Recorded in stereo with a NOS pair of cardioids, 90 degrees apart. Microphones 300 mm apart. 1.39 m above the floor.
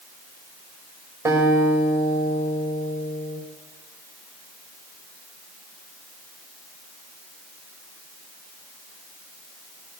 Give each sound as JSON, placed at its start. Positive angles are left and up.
{"t": 1.2, "sound": "a guitar", "azimuth_deg": -10, "distance_m": 5.5}